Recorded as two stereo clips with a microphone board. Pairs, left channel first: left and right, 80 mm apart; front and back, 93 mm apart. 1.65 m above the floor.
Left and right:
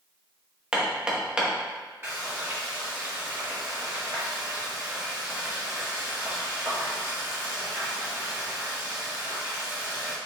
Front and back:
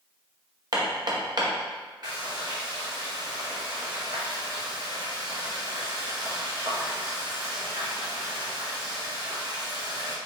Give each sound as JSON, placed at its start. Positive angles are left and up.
{"t": 0.7, "sound": "hammering", "azimuth_deg": -165, "distance_m": 0.9}
{"t": 2.0, "sound": "frying", "azimuth_deg": -140, "distance_m": 1.7}